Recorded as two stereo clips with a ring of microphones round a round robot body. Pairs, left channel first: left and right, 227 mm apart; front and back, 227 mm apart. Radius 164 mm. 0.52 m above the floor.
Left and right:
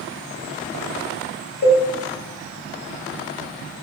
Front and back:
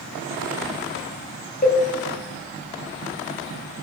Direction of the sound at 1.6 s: 50° left.